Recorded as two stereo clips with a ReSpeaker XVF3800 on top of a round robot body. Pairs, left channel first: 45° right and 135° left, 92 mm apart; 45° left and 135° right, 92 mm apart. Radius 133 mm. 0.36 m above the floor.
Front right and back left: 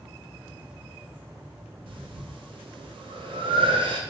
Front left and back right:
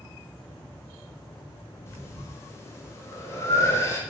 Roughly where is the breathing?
Left.